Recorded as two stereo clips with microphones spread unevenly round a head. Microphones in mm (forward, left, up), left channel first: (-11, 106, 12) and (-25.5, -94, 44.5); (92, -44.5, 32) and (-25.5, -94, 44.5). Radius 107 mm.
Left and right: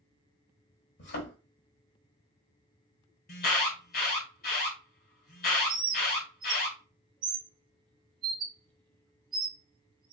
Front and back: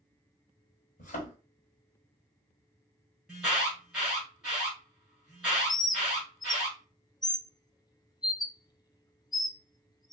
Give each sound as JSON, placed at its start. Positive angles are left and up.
{"t": 1.0, "sound": "a thud", "azimuth_deg": 50, "distance_m": 1.2}
{"t": 3.3, "sound": "an alarm", "azimuth_deg": 115, "distance_m": 1.6}
{"t": 5.7, "sound": "a bird", "azimuth_deg": -25, "distance_m": 0.6}